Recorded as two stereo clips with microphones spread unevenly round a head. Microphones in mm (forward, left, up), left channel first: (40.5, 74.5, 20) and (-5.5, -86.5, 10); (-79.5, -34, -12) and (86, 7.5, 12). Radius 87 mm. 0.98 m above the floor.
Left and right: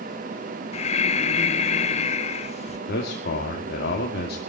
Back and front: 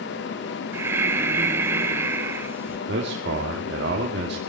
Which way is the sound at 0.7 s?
95° left.